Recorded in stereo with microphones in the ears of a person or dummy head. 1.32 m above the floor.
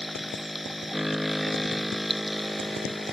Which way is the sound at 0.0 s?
Centre (ahead or behind).